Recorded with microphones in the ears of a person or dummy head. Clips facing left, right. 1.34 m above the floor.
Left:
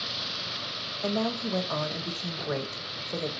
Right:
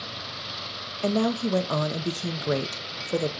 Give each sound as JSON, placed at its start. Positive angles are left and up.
{"t": 1.0, "sound": "a woman speaking", "side_deg": -40, "distance_m": 0.5}